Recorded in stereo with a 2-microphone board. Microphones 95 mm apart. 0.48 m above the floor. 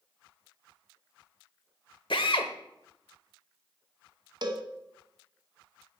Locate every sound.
2.1 s a drill: 60° left (ahead or behind), 0.9 m
4.4 s a cowbell: 45° right (ahead or behind), 0.9 m